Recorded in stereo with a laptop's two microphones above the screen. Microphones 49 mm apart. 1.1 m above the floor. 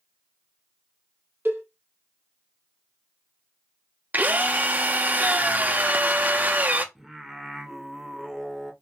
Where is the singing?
10° right (ahead or behind), 0.7 m.